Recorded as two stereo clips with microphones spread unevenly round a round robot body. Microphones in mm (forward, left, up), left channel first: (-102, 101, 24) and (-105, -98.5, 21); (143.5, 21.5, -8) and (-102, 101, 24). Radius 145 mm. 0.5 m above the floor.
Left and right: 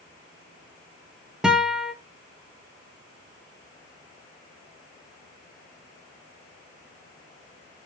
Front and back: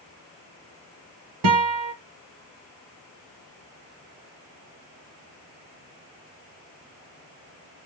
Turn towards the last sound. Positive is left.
turn(degrees=180)